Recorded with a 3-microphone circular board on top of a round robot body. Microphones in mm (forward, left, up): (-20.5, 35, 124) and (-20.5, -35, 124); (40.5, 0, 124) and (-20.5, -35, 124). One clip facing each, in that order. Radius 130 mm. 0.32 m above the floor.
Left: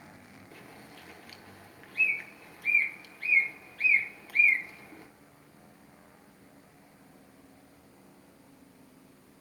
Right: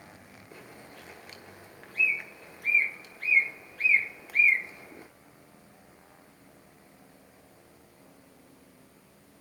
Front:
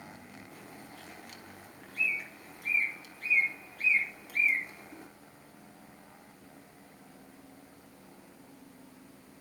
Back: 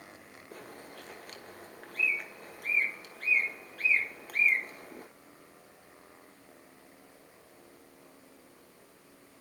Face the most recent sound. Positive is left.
turn(degrees=-155)